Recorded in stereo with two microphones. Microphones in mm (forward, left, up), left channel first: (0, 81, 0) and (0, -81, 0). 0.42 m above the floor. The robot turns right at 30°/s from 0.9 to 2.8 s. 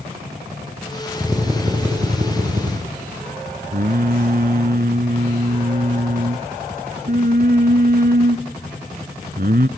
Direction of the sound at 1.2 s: 170° right.